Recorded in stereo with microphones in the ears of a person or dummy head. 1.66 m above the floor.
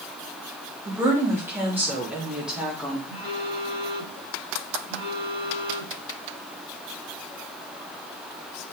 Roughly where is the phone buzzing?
Centre.